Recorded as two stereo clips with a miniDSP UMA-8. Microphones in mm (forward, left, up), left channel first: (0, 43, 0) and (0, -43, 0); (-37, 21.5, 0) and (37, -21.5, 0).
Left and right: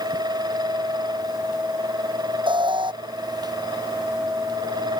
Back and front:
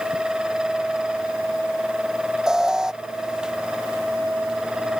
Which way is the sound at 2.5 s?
115° right.